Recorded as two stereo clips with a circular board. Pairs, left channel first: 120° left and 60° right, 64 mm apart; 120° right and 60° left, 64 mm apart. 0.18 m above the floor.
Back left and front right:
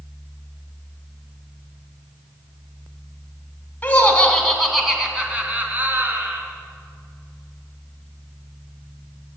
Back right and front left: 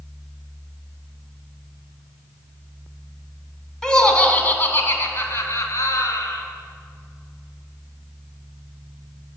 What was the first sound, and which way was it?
Laughter, 170° left.